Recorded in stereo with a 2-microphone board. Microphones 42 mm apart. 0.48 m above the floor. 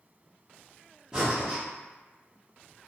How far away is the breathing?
About 1.0 m.